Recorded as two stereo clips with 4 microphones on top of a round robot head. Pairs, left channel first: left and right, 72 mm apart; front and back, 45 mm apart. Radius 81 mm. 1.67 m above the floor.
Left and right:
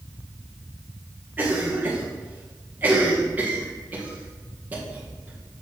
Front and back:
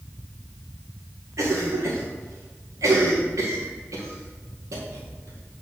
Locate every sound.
1.4 s a cough: 165° right, 1.9 m